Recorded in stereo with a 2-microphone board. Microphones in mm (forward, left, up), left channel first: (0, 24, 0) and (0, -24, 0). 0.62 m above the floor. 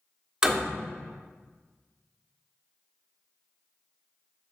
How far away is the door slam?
About 1.1 m.